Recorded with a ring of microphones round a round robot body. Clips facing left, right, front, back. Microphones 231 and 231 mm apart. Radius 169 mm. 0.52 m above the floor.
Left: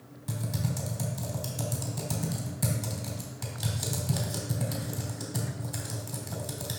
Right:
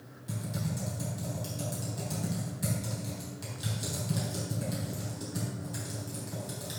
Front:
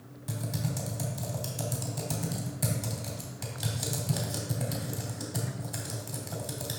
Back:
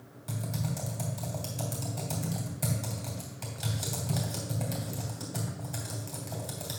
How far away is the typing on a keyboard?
About 3 m.